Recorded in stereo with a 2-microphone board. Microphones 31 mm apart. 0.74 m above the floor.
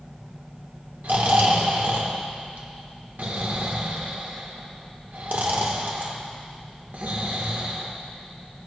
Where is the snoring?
75° right (ahead or behind), 1.4 m.